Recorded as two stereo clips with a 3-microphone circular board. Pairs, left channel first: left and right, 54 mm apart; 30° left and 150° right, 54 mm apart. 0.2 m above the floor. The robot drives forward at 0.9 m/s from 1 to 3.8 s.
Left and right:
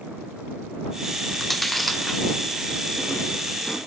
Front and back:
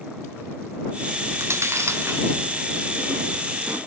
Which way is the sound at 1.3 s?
175° left.